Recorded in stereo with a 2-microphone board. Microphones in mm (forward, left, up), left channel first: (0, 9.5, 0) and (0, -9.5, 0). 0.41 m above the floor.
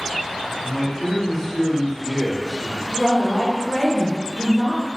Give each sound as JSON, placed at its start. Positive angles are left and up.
{"t": 0.6, "sound": "a man speaking", "side_deg": 20, "distance_m": 1.2}
{"t": 2.9, "sound": "a woman speaking", "side_deg": -10, "distance_m": 0.9}